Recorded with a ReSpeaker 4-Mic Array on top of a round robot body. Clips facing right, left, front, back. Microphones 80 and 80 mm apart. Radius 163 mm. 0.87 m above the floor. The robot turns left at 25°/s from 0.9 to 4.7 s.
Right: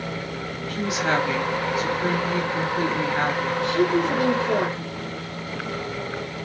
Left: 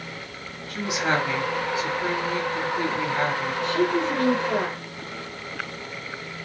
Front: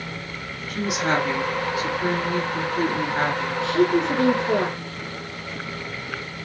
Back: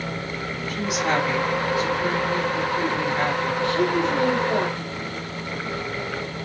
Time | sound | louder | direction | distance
0.7 | a woman speaking | right 1 dB, front 1 dB | 25° left | 3 m
3.6 | a woman speaking | right 2 dB, front 3 dB | 5° right | 2.5 m